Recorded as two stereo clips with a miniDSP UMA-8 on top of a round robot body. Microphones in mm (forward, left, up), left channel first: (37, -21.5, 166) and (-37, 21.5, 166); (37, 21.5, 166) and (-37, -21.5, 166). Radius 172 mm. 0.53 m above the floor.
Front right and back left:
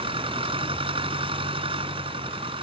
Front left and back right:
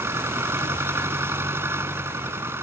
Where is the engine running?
145° left.